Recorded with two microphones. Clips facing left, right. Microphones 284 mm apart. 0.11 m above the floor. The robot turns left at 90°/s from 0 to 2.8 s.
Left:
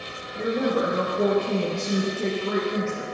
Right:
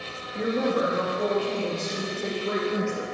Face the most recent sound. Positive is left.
turn(degrees=-15)